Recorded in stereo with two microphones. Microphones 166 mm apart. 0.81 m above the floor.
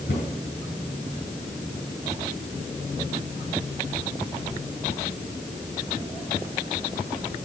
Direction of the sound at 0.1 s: 90° left.